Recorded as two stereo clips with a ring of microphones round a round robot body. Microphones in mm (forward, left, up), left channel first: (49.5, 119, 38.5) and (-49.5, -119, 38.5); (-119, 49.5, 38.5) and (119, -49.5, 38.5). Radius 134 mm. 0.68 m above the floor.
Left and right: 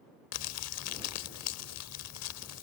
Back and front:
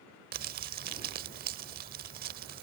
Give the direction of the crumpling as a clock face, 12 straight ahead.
11 o'clock.